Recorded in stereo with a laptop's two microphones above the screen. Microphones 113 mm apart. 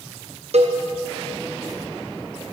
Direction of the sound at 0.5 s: 70° right (ahead or behind).